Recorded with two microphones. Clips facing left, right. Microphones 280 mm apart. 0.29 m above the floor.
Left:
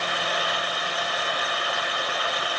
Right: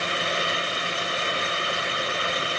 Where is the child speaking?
No child speaking in this recording.